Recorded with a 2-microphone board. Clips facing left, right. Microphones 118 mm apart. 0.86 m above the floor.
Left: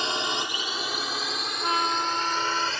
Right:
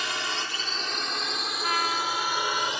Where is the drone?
25° left (ahead or behind); by 2.8 s 15° right (ahead or behind).